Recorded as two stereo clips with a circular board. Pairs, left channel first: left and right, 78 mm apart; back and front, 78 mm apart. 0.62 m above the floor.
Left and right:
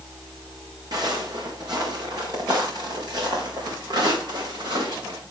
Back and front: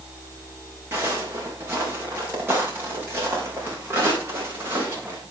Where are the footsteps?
60° right, 6 m; by 5.2 s 65° right, 10 m.